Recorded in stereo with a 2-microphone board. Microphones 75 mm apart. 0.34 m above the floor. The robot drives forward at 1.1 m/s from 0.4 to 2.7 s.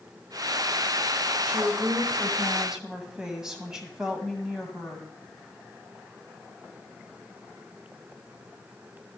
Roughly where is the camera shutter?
I don't hear a camera shutter.